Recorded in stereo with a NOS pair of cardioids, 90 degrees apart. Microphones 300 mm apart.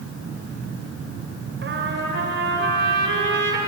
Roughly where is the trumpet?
Ahead right.